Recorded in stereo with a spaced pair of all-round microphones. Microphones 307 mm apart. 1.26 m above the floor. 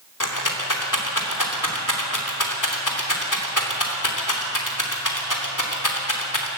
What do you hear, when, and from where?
0.2 s a rattle: 70° left (ahead or behind), 3 m